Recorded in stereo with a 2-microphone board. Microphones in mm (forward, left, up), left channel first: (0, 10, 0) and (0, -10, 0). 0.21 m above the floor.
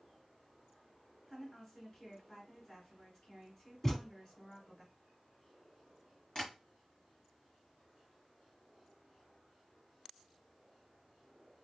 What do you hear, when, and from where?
1.3 s a woman speaking: 35° left (ahead or behind), 1.4 m
3.8 s a thud: 15° left (ahead or behind), 0.7 m
6.3 s tapping: 30° left (ahead or behind), 2 m